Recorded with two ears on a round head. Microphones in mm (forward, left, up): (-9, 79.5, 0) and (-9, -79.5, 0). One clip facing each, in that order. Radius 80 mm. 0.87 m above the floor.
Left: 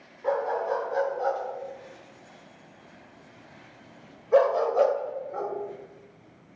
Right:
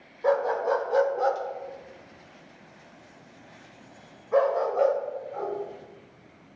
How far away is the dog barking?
About 1.2 m.